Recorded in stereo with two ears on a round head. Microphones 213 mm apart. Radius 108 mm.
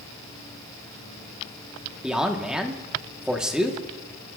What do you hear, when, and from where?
2.0 s a man speaking: 5° right (ahead or behind), 1.3 m